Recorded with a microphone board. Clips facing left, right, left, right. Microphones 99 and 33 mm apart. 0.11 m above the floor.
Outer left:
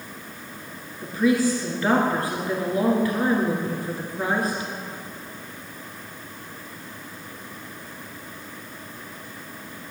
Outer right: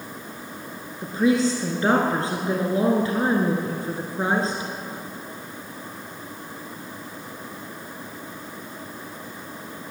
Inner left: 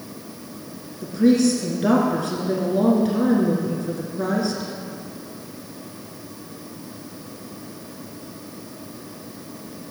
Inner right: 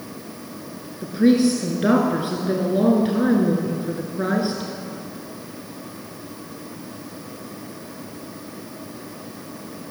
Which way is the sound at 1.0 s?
30° right (ahead or behind).